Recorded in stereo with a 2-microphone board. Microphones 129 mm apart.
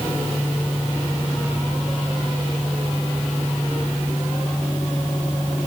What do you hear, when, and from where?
Only background noise.